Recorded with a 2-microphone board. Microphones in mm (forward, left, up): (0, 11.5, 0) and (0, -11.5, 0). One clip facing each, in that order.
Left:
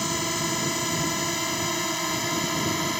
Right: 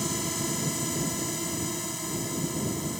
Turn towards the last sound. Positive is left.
turn(degrees=45)  # may be behind; listen again after turning